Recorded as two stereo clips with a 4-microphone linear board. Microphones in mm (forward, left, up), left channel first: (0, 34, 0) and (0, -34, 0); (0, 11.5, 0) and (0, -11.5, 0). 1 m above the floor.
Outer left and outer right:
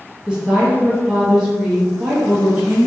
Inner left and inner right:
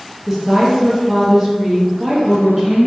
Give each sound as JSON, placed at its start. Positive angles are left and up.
{"t": 0.3, "sound": "a woman speaking", "side_deg": -10, "distance_m": 1.1}